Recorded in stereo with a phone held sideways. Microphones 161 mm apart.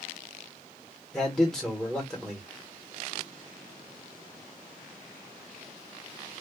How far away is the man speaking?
About 1.5 m.